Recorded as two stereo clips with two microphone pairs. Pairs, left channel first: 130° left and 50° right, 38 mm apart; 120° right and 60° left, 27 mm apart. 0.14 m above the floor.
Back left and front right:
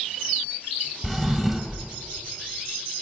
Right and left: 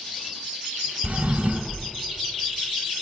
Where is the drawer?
40° left, 1.1 m.